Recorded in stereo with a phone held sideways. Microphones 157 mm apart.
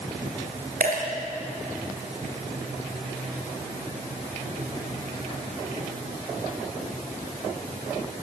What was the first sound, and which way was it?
A dropped coin, 65° right (ahead or behind).